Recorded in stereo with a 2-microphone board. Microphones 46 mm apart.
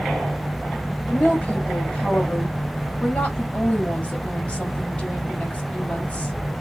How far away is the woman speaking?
About 1.4 m.